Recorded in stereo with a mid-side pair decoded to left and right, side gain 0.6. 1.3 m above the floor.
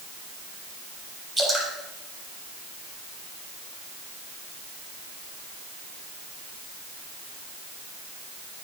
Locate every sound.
1.4 s dripping: 20° right, 7 m